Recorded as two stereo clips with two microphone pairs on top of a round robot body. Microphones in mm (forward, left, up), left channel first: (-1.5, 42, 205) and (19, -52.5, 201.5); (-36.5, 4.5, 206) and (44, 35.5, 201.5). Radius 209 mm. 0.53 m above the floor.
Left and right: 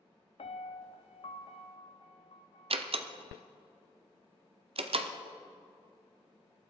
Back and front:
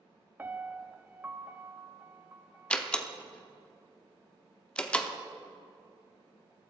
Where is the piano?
90° left, 0.8 m.